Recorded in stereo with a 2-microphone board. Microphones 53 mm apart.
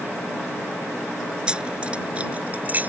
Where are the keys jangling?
15° right (ahead or behind); by 2.9 s 35° right (ahead or behind).